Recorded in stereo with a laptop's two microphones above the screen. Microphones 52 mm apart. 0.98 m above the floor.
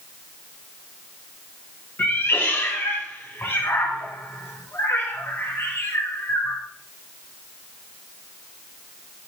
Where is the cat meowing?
50° left (ahead or behind), 1.4 m.